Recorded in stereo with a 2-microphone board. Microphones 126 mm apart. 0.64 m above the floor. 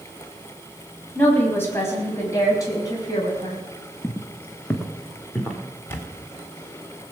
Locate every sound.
1.1 s a woman speaking: 15° left (ahead or behind), 4.5 m; by 3.6 s 35° left (ahead or behind), 5 m
4.0 s footsteps: 20° left (ahead or behind), 1.3 m; by 5.6 s centre (ahead or behind), 3.5 m
5.9 s a camera shutter: 20° left (ahead or behind), 2 m